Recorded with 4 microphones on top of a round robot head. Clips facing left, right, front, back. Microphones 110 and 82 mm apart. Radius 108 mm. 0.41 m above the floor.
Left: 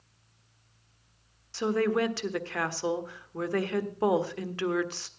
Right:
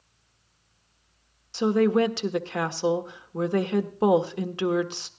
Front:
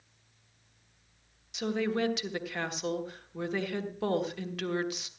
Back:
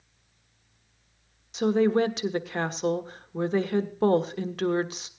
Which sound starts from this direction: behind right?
A woman speaking, at 1.5 s.